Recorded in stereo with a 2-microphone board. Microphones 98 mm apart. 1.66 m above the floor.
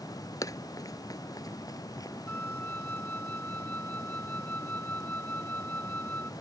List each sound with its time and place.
0.4 s running footsteps: 35° left (ahead or behind)
2.3 s a flute: 15° left (ahead or behind)